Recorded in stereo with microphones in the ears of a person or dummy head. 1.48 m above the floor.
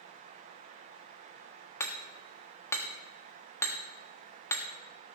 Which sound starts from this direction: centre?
Hammering, at 1.8 s.